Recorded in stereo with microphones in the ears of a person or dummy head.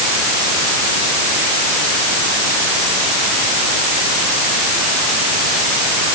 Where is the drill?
No drill in this recording.